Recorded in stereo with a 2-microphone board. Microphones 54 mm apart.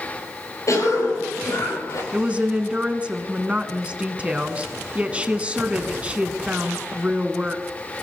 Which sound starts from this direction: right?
A woman speaking, at 2.1 s.